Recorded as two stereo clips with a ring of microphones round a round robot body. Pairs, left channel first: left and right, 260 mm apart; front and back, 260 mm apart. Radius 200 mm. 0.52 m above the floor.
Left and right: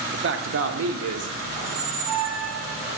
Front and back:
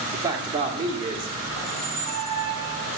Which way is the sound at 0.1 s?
110° right.